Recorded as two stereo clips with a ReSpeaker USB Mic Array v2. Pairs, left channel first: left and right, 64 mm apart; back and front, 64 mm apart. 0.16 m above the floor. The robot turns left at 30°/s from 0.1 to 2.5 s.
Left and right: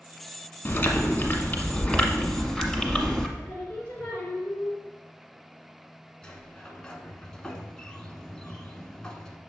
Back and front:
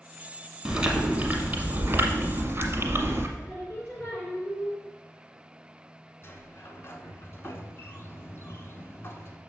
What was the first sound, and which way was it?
Chewing, 65° left.